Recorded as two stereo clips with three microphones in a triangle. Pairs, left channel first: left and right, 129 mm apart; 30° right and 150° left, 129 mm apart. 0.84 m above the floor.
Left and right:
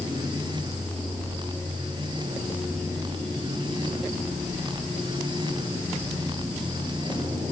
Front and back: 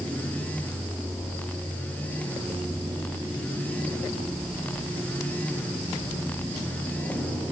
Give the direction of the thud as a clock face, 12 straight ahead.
No thud in this recording.